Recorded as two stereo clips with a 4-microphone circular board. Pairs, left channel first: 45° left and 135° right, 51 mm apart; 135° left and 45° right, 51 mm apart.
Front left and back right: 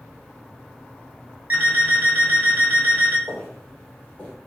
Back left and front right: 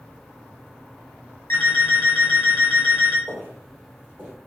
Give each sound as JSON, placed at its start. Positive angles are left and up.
{"t": 1.5, "sound": "an alarm clock", "azimuth_deg": 170, "distance_m": 1.1}
{"t": 3.3, "sound": "footsteps", "azimuth_deg": -35, "distance_m": 2.0}